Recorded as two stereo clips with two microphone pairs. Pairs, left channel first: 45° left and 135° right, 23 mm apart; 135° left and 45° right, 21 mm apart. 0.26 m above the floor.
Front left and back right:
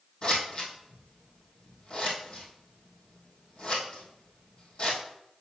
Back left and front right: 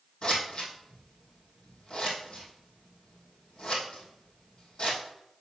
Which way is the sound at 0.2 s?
95° left.